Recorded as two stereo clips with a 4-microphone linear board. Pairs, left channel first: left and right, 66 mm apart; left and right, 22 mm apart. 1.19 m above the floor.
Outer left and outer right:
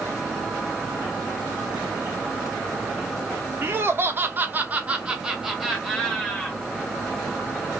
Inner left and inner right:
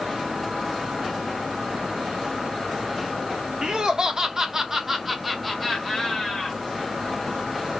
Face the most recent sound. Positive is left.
turn(degrees=5)  # may be behind; listen again after turning